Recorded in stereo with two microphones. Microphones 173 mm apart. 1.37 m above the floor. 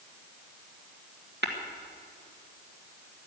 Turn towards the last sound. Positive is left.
turn(degrees=-90)